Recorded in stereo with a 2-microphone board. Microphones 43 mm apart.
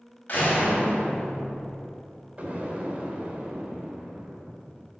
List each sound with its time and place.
0.3 s a door slam: 40° left (ahead or behind), 5 m
2.4 s an explosion: 35° right (ahead or behind), 2.5 m